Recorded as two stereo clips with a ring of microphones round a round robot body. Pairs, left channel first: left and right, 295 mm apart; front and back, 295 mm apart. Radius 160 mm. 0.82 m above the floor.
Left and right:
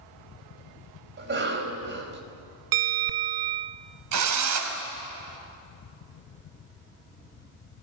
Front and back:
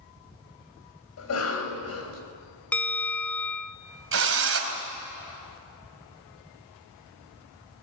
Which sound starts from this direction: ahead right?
A cough, at 1.2 s.